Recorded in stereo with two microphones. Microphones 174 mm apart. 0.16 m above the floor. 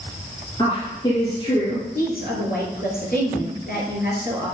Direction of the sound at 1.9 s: 60° left (ahead or behind).